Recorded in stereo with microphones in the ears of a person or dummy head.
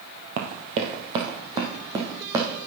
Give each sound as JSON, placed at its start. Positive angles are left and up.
{"t": 0.4, "sound": "running footsteps", "side_deg": -40, "distance_m": 1.8}